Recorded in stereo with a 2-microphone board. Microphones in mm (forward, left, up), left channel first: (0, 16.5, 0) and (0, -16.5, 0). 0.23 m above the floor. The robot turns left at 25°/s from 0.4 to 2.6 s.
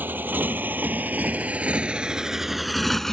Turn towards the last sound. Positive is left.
turn(degrees=15)  # may be behind; listen again after turning